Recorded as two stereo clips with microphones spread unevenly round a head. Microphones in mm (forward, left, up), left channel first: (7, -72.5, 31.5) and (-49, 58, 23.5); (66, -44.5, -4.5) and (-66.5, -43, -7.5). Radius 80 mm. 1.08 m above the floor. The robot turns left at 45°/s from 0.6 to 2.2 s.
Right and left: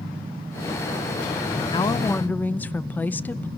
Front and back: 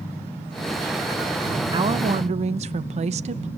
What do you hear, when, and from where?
1.7 s a woman speaking: 125° right, 0.6 m; by 3.5 s 145° right, 0.6 m